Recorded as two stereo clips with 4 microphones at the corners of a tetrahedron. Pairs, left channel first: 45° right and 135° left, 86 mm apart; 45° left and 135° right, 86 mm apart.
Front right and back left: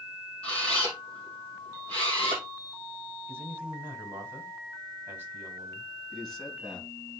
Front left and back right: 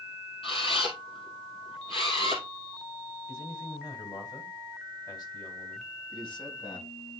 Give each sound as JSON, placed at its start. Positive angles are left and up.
{"t": 0.4, "sound": "a camera shutter", "azimuth_deg": 35, "distance_m": 3.0}
{"t": 3.3, "sound": "a man speaking", "azimuth_deg": 75, "distance_m": 2.5}
{"t": 6.1, "sound": "a man speaking", "azimuth_deg": 40, "distance_m": 3.0}